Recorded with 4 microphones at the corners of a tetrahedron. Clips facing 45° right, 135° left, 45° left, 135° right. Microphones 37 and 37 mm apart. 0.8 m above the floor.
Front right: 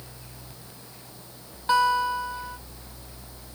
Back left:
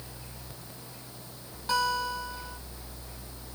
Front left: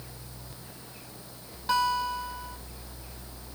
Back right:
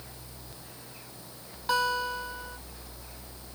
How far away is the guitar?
About 1.0 m.